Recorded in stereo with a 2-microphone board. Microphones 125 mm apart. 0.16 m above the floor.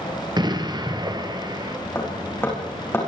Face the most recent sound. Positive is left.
turn(degrees=20)  # may be behind; listen again after turning